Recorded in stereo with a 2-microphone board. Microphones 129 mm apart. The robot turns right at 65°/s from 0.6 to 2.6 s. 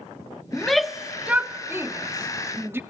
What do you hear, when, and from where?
0.5 s a shout: 5° left (ahead or behind), 0.6 m; by 2.8 s 20° right (ahead or behind), 0.6 m